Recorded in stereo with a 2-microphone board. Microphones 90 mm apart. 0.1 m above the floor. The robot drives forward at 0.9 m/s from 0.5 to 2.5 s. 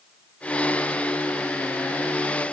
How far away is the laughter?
I don't hear laughter.